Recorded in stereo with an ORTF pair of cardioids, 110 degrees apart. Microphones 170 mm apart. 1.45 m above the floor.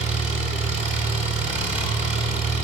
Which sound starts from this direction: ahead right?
An engine running, at 0.0 s.